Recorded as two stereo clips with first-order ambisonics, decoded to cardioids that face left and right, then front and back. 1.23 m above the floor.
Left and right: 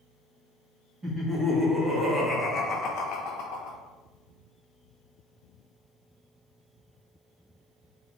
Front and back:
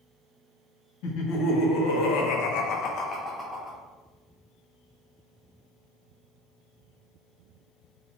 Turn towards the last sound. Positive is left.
turn(degrees=100)